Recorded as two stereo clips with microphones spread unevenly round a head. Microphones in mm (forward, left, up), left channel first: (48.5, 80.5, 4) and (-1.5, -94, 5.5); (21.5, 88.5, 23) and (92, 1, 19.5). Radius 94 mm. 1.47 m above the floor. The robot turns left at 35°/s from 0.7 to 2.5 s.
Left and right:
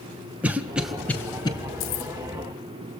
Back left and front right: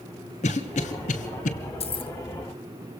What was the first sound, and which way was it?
A cough, 170° left.